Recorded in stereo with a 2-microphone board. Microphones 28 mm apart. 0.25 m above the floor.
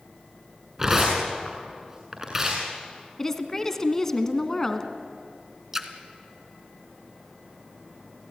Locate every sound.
0.8 s tearing paper: 20° right (ahead or behind), 7 m
3.2 s a woman speaking: 15° left (ahead or behind), 2.0 m
5.7 s a splash: 15° right (ahead or behind), 1.6 m